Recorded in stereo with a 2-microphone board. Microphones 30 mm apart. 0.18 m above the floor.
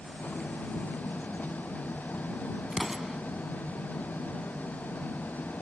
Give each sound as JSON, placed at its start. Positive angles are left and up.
{"t": 0.0, "sound": "an engine running", "side_deg": 65}
{"t": 2.7, "sound": "an explosion", "side_deg": -10}